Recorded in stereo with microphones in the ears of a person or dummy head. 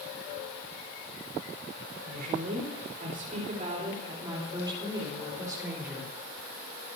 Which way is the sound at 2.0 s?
60° right (ahead or behind).